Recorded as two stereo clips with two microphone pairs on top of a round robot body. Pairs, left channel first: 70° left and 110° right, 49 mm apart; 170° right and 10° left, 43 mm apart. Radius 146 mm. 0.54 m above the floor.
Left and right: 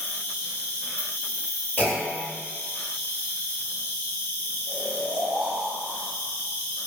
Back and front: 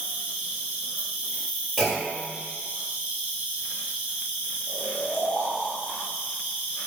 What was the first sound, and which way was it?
An insect, 65° left.